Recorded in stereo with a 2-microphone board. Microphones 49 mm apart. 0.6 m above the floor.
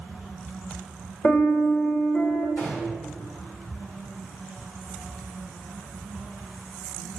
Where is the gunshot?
40° left (ahead or behind), 1.2 m.